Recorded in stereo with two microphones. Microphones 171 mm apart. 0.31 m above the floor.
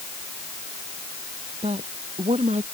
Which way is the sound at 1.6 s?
40° right (ahead or behind).